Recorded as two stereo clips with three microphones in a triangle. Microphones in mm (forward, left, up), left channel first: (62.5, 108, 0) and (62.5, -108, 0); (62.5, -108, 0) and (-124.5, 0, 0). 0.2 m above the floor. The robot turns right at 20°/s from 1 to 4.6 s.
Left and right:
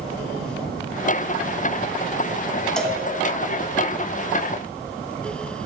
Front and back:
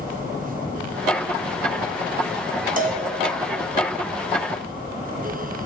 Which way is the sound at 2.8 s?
175° left.